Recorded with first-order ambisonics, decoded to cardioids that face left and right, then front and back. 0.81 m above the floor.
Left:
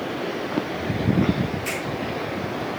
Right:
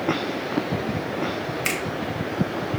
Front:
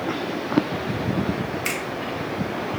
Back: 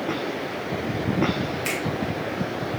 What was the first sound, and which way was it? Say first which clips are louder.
A finger snap: right 5 dB, front 1 dB; 85° right.